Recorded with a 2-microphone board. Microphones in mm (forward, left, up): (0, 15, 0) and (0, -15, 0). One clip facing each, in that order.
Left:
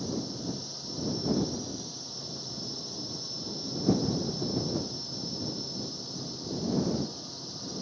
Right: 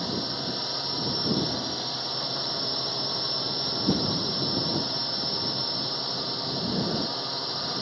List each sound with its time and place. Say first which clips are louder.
0.0 s a drone: right 4 dB; 60° right (ahead or behind)